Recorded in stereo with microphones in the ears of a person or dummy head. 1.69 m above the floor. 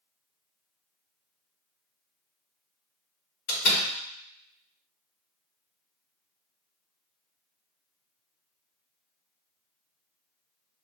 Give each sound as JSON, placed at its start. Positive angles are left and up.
{"t": 3.5, "sound": "a door slam", "side_deg": 65, "distance_m": 1.9}